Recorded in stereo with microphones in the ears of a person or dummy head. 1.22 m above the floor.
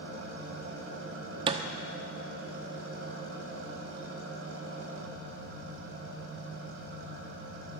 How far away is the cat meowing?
No cat meowing in this recording.